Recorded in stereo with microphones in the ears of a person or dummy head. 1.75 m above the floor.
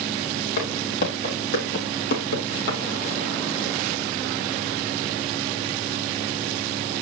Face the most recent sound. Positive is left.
turn(degrees=60)  # may be behind; listen again after turning